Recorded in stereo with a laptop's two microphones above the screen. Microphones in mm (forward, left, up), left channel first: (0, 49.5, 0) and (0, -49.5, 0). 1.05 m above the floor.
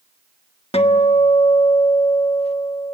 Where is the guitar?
85° left, 1.3 m.